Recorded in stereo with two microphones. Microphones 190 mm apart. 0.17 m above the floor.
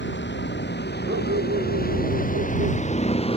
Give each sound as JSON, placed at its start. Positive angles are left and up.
{"t": 0.0, "sound": "a vehicle", "side_deg": 70}
{"t": 1.1, "sound": "a dog barking", "side_deg": -85}